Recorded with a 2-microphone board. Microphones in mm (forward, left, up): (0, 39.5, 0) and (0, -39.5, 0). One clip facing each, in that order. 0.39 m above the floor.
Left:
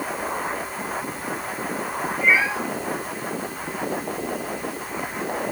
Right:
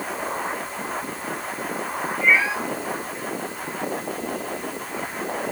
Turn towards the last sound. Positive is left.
turn(degrees=5)  # may be behind; listen again after turning